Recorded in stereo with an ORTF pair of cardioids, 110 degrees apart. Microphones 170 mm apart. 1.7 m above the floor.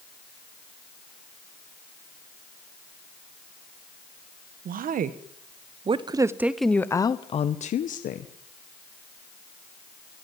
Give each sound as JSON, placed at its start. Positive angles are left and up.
{"t": 4.7, "sound": "a woman speaking", "azimuth_deg": -60, "distance_m": 1.9}